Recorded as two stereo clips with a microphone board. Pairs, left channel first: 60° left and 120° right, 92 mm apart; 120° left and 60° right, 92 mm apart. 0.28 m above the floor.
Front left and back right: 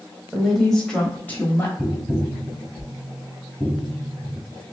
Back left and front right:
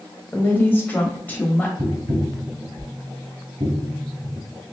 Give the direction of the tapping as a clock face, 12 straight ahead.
1 o'clock.